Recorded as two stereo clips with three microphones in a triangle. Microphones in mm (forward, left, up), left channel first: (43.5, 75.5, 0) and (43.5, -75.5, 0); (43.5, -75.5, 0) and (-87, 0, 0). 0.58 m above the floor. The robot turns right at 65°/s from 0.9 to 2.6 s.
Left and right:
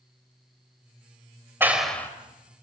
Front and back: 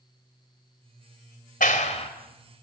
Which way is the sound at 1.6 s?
15° right.